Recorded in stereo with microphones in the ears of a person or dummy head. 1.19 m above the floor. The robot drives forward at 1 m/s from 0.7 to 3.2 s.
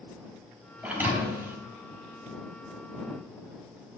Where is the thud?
10° right (ahead or behind), 3 m.